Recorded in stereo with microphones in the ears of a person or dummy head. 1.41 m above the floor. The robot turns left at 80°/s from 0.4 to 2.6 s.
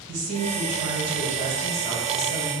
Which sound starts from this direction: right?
A woman speaking, at 0.1 s.